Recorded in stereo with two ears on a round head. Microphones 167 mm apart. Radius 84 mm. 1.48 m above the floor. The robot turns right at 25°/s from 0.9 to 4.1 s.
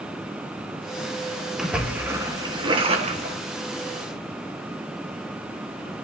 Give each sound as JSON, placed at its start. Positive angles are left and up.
{"t": 1.6, "sound": "a splash", "azimuth_deg": 180, "distance_m": 1.5}